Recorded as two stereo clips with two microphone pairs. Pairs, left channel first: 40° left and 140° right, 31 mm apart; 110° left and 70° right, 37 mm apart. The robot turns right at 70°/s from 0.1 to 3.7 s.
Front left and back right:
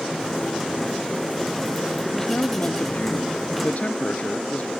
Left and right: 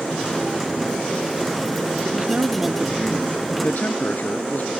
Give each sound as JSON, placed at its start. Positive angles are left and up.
{"t": 2.0, "sound": "a man speaking", "azimuth_deg": -40}